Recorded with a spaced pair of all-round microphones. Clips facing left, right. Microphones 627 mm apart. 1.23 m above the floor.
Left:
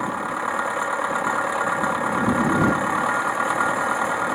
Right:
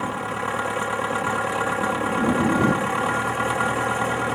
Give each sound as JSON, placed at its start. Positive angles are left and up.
{"t": 0.0, "sound": "an engine running", "side_deg": -55}